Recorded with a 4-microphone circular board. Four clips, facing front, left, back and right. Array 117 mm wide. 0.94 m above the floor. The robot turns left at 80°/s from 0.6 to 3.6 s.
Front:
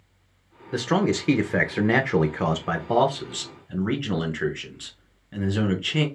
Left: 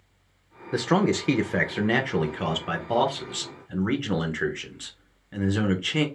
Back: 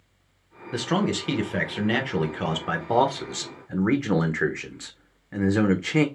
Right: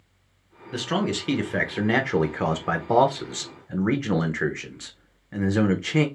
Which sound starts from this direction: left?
A man speaking, at 0.7 s.